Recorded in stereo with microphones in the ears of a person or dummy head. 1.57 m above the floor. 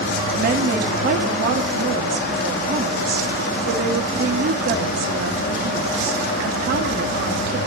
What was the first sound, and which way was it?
A woman speaking, 55° right (ahead or behind).